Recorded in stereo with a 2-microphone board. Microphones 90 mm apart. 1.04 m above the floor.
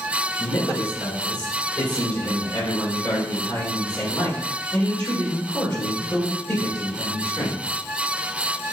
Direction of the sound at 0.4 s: 45° left (ahead or behind).